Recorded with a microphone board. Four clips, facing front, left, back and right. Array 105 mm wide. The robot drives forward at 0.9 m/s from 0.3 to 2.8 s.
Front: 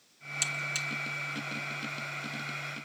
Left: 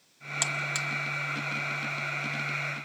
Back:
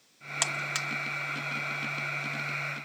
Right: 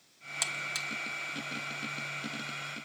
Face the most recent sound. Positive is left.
turn(degrees=175)